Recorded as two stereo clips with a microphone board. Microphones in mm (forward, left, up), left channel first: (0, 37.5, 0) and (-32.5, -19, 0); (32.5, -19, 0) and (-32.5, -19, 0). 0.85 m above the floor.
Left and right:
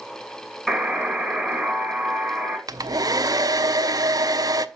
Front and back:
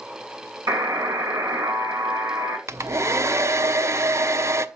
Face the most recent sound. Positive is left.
turn(degrees=-135)